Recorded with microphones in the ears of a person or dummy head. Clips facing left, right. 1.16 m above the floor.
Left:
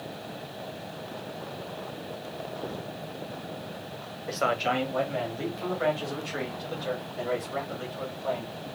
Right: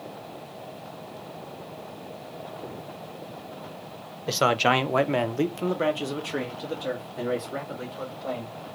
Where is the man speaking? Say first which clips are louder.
Right 5 dB; 40° right (ahead or behind), 0.5 m; by 8.5 s 30° right (ahead or behind), 2.5 m.